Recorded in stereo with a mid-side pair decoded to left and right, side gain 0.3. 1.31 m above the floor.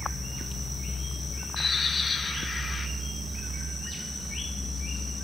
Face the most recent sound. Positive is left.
turn(degrees=60)